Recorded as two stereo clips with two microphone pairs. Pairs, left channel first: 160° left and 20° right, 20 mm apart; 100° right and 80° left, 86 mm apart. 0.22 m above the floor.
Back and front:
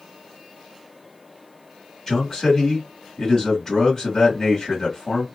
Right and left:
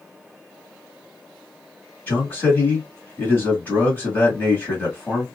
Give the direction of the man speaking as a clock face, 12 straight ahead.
5 o'clock.